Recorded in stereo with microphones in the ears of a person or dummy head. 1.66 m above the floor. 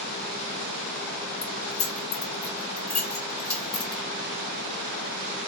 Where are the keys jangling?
5° left (ahead or behind), 1.3 m.